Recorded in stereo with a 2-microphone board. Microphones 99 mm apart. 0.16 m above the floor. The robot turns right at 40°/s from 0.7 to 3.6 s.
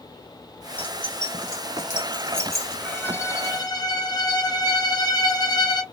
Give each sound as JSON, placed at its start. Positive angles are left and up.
{"t": 0.8, "sound": "keys jangling", "side_deg": 60, "distance_m": 1.5}
{"t": 2.9, "sound": "a violin", "azimuth_deg": 15, "distance_m": 0.5}